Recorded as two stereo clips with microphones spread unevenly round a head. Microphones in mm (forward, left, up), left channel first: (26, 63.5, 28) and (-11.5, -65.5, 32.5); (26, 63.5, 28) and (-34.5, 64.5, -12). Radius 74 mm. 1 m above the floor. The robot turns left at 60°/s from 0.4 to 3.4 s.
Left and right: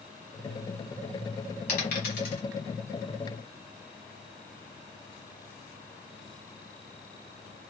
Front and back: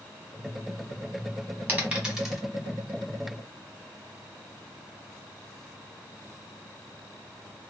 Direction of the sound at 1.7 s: 100° left.